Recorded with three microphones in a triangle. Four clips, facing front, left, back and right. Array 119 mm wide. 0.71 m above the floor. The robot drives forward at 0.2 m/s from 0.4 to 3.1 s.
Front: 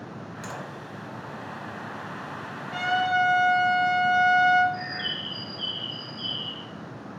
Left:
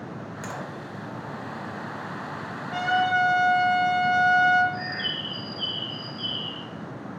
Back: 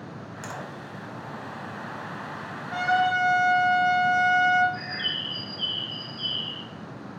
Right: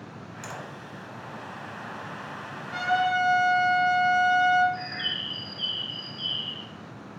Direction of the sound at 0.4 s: 105° left.